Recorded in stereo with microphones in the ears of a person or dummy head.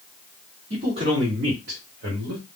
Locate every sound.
0.7 s a man speaking: 30° right (ahead or behind), 1.3 m; by 2.5 s 65° right (ahead or behind), 1.1 m